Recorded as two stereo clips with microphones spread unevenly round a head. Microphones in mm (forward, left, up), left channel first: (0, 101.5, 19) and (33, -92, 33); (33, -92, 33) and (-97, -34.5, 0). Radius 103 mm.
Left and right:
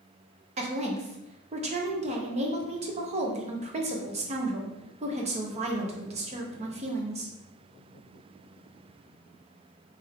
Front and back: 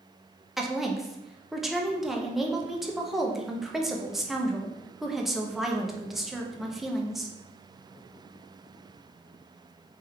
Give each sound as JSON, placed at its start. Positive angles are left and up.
{"t": 0.6, "sound": "a woman speaking", "azimuth_deg": -130, "distance_m": 0.7}